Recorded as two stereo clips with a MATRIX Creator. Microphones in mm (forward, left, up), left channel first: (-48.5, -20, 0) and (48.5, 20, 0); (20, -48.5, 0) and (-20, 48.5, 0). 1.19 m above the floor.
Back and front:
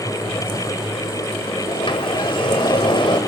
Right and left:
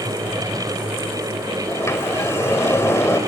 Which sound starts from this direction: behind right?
A sliding door, at 1.7 s.